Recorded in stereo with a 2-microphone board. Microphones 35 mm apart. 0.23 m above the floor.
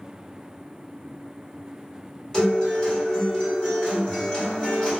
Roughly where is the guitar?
Left.